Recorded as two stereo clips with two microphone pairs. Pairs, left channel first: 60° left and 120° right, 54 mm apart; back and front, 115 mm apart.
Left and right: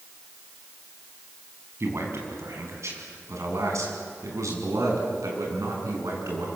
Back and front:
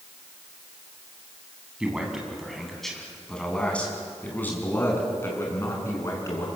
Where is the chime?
No chime in this recording.